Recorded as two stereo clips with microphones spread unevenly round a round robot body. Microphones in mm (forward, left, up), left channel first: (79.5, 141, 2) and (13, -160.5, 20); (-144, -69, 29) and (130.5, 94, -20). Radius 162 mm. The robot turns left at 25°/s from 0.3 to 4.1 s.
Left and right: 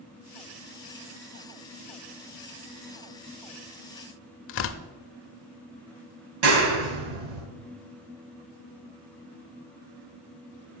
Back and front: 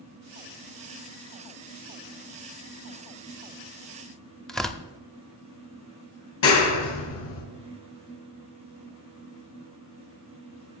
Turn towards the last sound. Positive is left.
turn(degrees=-110)